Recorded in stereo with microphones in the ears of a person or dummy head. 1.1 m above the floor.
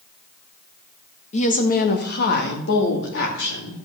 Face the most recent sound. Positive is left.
turn(degrees=70)  # may be behind; listen again after turning